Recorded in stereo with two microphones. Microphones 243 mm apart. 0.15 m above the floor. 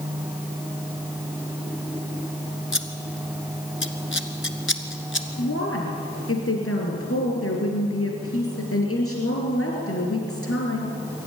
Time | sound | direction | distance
2.7 | scissors | 50° left (ahead or behind) | 1.4 m
5.4 | a woman speaking | 60° left (ahead or behind) | 3 m